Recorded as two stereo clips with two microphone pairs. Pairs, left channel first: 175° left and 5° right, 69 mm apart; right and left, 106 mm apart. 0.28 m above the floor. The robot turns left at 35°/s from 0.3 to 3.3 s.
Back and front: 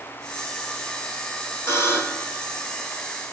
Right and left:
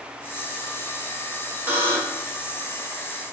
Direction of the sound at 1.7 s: 150° left.